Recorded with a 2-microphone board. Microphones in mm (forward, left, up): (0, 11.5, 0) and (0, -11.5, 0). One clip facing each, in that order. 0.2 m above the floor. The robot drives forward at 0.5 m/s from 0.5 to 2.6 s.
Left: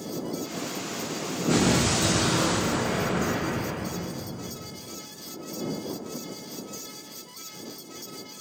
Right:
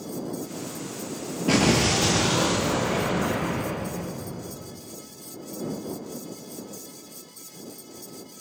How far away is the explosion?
About 0.6 m.